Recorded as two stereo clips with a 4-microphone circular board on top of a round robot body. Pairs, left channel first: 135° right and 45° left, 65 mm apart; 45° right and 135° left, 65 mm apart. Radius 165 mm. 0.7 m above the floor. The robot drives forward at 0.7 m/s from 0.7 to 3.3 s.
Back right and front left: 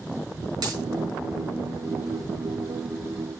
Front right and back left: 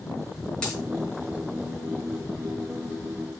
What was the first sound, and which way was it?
A dropped coin, 30° left.